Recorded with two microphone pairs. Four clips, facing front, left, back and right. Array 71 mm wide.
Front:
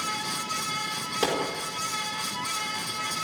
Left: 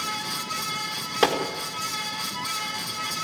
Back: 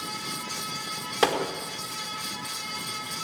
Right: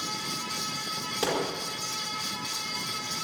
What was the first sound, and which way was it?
A gunshot, 125° left.